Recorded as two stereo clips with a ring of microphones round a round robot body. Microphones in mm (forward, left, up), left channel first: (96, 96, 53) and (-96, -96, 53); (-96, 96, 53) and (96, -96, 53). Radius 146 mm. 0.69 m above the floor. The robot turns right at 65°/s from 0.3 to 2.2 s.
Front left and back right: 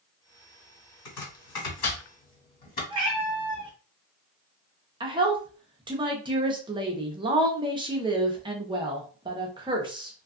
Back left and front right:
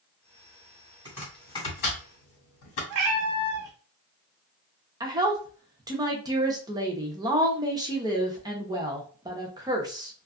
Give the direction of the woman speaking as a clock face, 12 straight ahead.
3 o'clock.